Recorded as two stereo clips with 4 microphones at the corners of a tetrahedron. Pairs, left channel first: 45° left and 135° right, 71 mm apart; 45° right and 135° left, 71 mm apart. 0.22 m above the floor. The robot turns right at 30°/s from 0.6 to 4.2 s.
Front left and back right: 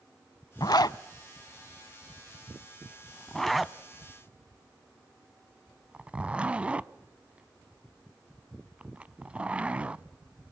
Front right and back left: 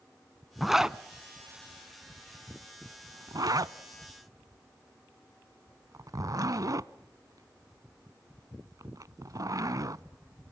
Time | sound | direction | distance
0.6 | a zipper | 45° left | 0.5 m